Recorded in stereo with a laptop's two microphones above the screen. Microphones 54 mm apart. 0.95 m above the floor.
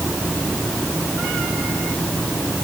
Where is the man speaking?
I don't hear a man speaking.